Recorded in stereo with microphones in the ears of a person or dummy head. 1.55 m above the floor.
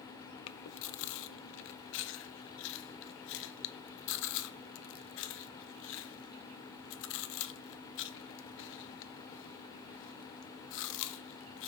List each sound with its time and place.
0.5 s chewing: 60° left (ahead or behind), 0.6 m